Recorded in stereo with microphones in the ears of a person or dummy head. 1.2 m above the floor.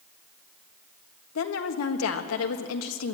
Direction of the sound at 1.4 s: 80° left.